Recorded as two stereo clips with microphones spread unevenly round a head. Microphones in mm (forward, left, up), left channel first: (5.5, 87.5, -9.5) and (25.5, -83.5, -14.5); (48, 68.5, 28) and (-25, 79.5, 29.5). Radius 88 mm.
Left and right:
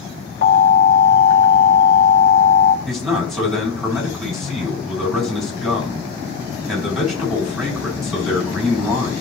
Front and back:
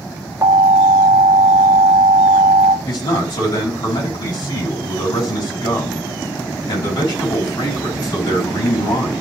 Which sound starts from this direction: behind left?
An alarm, at 0.4 s.